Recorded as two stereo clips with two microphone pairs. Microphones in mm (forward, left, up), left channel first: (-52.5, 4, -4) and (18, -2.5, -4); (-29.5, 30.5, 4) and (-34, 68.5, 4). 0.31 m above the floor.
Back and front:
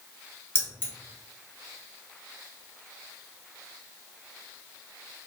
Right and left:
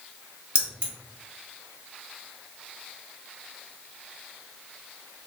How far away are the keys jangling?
About 1.2 m.